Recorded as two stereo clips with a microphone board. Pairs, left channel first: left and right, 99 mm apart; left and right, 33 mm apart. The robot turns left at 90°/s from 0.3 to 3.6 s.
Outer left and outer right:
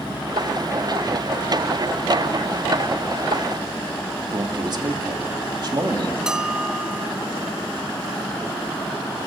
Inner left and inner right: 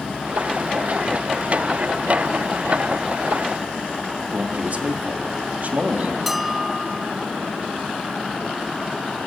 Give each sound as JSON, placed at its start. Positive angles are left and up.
{"t": 4.3, "sound": "a man speaking", "side_deg": -45, "distance_m": 2.0}
{"t": 6.3, "sound": "a bell", "side_deg": -5, "distance_m": 0.8}